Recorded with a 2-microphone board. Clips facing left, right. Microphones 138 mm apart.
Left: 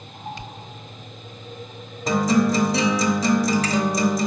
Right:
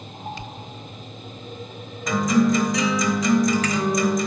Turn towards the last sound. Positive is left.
turn(degrees=35)  # may be behind; listen again after turning